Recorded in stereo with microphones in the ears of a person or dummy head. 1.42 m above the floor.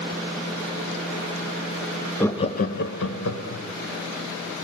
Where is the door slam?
I don't hear a door slam.